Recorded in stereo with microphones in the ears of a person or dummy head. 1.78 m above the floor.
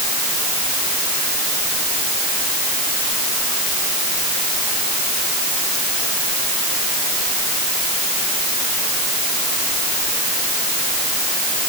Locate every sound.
Only background noise.